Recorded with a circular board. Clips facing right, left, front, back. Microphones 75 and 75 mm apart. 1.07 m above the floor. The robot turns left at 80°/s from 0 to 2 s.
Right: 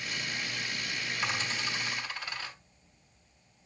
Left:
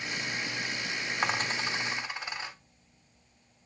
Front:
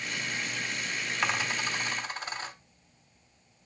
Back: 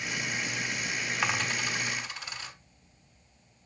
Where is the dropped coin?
90° left, 0.7 m; by 2.5 s 25° left, 0.7 m.